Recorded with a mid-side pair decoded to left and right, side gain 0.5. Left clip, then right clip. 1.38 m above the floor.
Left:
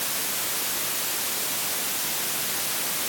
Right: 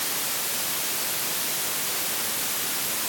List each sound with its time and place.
Only background noise.